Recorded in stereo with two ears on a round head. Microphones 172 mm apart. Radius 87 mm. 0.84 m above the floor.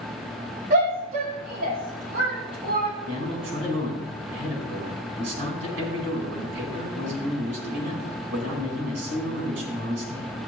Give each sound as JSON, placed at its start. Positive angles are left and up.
{"t": 0.7, "sound": "a shout", "side_deg": -50, "distance_m": 5.0}
{"t": 3.1, "sound": "a man speaking", "side_deg": -70, "distance_m": 4.5}